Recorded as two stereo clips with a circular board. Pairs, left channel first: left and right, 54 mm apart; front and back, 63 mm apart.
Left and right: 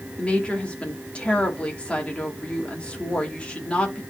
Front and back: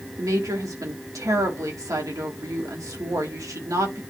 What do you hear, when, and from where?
0.2 s a woman speaking: 160° left, 2.5 m